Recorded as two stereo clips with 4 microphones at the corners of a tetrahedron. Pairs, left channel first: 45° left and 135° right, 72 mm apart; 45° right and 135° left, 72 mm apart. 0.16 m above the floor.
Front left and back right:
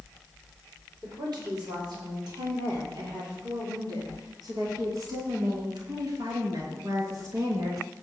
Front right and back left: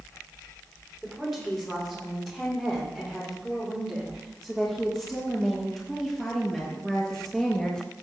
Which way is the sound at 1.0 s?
135° right.